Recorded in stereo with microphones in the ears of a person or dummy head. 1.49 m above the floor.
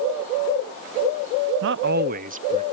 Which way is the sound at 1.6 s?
65° right (ahead or behind).